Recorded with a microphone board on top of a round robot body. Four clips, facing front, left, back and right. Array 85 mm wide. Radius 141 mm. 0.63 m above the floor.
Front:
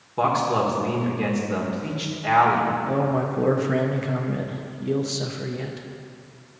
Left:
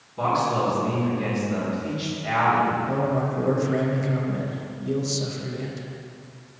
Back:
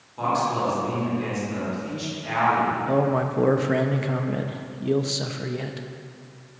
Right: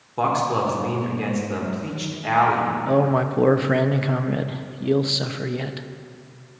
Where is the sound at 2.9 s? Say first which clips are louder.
Right 5 dB, back 1 dB; 100° right, 0.7 m.